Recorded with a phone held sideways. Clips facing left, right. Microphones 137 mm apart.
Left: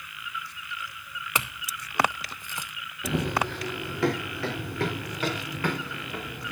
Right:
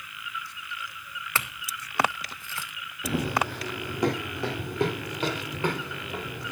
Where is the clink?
20° left (ahead or behind), 0.5 m.